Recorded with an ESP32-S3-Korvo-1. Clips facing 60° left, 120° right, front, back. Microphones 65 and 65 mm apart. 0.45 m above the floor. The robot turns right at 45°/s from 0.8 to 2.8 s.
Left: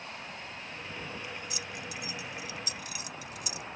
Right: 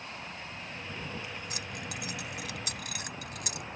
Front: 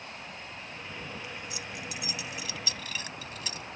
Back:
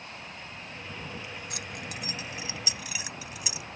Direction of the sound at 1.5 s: 160° right.